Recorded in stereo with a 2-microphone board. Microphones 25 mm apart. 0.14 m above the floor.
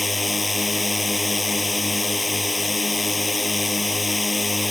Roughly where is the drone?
Centre.